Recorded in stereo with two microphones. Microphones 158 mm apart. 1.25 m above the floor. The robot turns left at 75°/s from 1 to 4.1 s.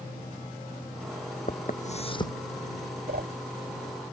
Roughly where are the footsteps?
Left.